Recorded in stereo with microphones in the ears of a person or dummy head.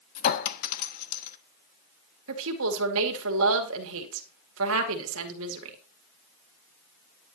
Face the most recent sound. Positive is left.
turn(degrees=-75)  # may be behind; listen again after turning